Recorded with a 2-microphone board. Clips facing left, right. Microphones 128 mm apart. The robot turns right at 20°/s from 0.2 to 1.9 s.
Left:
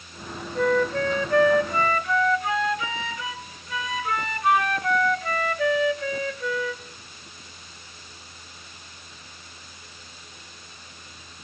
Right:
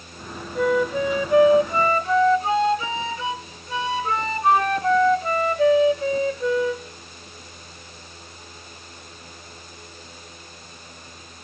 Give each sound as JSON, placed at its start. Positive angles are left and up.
{"t": 0.6, "sound": "a flute", "side_deg": -5, "distance_m": 0.8}